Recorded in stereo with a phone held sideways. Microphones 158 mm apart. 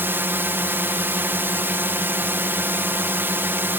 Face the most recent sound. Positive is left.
turn(degrees=-15)  # may be behind; listen again after turning